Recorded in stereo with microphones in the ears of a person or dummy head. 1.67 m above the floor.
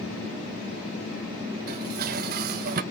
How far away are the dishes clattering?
About 1.2 m.